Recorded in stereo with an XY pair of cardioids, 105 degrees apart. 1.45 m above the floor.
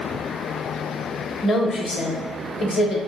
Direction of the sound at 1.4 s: 45° left.